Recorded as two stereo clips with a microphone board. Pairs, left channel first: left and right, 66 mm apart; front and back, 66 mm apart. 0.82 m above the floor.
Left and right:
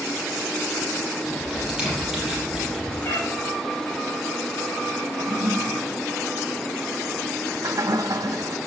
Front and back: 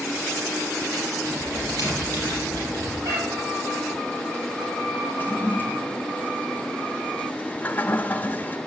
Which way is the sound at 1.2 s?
170° right.